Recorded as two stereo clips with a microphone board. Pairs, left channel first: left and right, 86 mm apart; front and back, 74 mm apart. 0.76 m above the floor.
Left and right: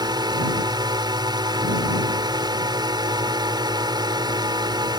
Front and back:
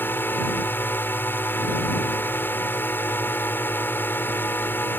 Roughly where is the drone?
Ahead right.